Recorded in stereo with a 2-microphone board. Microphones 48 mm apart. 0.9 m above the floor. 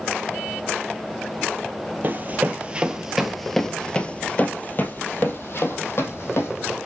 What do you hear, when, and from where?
2.0 s running footsteps: 40° right (ahead or behind), 1.1 m; by 6.8 s 65° left (ahead or behind), 2.0 m